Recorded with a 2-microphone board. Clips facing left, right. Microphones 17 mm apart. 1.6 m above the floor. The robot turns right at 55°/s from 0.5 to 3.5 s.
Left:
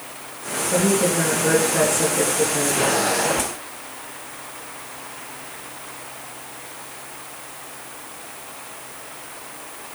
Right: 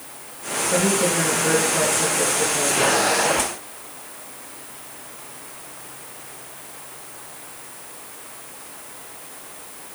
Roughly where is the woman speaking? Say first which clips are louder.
Left 1 dB; ahead.